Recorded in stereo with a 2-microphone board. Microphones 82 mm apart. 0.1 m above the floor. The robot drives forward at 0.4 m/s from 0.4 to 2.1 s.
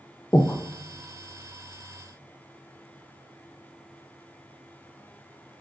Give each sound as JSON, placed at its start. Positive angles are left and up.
{"t": 0.3, "sound": "breathing", "side_deg": 35, "distance_m": 0.8}